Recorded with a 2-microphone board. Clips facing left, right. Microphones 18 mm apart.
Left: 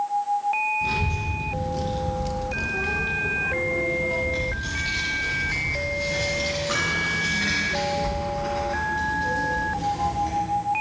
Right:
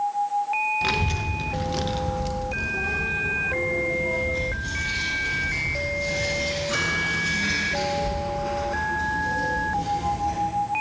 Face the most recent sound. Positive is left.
turn(degrees=65)  # may be behind; listen again after turning